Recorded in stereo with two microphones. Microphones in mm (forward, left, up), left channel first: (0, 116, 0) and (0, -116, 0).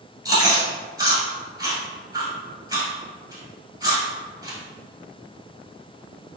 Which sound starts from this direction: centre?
Chewing, at 0.2 s.